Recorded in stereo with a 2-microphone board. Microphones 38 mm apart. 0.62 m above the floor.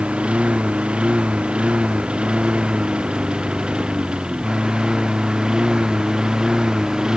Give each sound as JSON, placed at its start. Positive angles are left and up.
{"t": 0.0, "sound": "a lawn mower", "side_deg": -30}